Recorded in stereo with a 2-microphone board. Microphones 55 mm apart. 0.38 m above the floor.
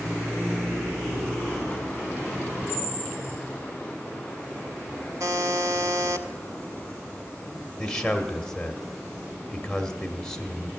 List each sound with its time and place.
5.2 s a buzzer: 85° right, 0.7 m
7.8 s a man speaking: 10° left (ahead or behind), 1.4 m